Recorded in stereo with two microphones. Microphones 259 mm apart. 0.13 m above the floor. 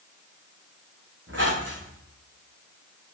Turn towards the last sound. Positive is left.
turn(degrees=-50)  # may be behind; listen again after turning